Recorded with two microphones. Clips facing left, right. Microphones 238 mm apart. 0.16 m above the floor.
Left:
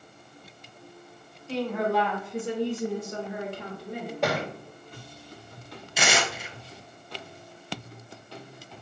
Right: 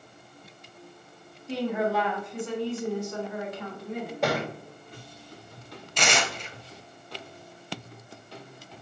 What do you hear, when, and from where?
1.5 s a woman speaking: 15° right (ahead or behind), 1.1 m; by 4.1 s 35° left (ahead or behind), 1.6 m
4.2 s a thud: centre (ahead or behind), 1.9 m
6.0 s tearing paper: 5° left (ahead or behind), 0.5 m